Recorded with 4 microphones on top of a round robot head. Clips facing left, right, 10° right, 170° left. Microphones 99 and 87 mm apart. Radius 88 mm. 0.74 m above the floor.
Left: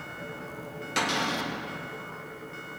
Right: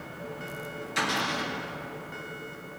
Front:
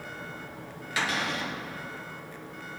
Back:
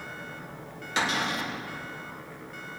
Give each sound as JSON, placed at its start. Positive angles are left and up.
{"t": 1.0, "sound": "a cupboard door", "azimuth_deg": 110, "distance_m": 3.5}